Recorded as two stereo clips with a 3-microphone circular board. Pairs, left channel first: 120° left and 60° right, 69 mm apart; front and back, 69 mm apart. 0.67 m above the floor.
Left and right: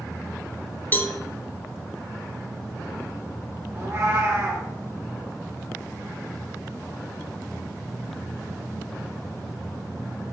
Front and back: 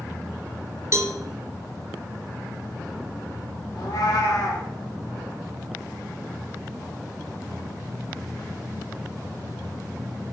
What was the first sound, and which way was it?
A cowbell, 165° left.